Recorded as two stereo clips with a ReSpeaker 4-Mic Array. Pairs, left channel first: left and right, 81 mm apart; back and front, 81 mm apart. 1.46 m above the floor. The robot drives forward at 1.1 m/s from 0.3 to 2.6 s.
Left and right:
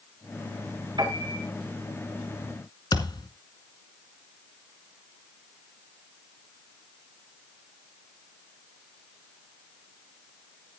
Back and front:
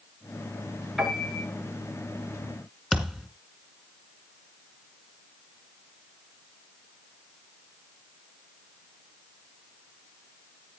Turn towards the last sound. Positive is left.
turn(degrees=95)